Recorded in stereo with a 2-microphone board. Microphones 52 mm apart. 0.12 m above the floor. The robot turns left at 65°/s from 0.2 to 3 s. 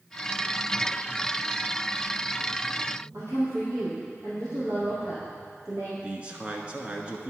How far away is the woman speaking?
About 3 m.